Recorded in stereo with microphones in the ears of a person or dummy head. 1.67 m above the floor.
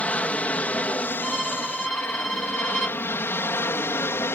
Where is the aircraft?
10° left (ahead or behind); by 4.3 s 15° left (ahead or behind).